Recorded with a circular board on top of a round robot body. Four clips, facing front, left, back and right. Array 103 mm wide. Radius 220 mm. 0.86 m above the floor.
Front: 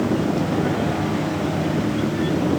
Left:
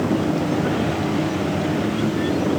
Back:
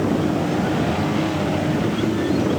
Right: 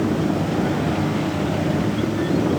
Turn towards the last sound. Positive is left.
No sound to turn to.